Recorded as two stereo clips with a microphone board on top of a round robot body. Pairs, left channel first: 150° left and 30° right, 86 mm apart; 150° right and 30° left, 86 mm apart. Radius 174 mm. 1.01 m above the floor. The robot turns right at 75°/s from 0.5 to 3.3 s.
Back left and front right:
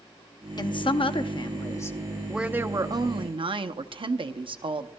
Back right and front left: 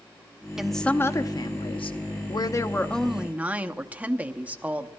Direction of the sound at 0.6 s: 115° left.